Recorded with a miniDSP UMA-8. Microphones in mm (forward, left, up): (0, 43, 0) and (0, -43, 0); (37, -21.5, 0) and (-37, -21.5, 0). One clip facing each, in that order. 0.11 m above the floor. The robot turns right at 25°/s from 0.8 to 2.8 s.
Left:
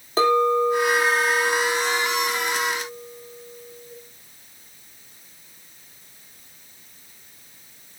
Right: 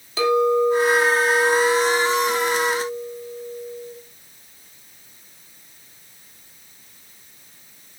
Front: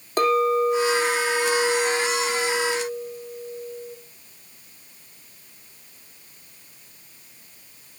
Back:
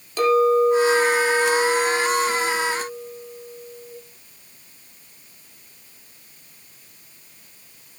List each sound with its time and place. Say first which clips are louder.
0.2 s a clink: right 1 dB, back 3 dB; 45° left, 2.5 m; by 3.9 s 95° left, 2.5 m